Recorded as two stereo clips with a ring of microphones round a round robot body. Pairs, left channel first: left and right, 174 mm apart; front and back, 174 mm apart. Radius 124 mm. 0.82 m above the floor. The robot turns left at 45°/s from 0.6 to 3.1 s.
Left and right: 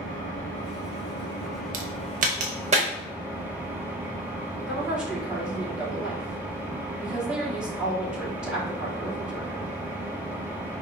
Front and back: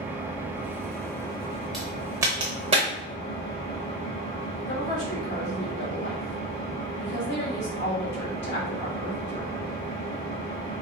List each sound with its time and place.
0.0 s an engine running: 100° left, 1.5 m; by 10.8 s 10° right, 1.5 m
1.7 s a crack: 90° right, 0.6 m; by 2.9 s 140° right, 0.6 m
4.7 s a woman speaking: 5° right, 2.5 m